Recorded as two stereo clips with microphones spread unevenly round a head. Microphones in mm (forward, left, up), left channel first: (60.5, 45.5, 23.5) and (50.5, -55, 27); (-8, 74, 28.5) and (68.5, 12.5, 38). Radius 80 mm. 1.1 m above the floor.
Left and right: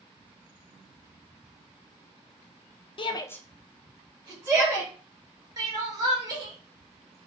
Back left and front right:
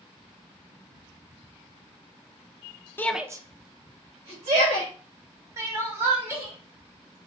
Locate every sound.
3.0 s a shout: 80° left, 0.5 m; by 4.9 s 35° right, 2 m
5.6 s crying: 85° right, 0.7 m